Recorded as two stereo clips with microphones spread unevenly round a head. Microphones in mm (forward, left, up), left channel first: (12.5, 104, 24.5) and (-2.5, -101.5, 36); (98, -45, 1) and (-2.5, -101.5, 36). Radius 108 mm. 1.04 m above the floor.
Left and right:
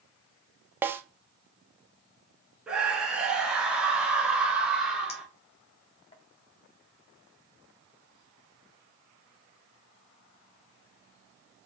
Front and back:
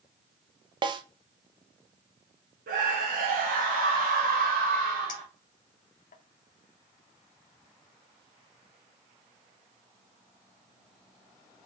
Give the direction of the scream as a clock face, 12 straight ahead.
6 o'clock.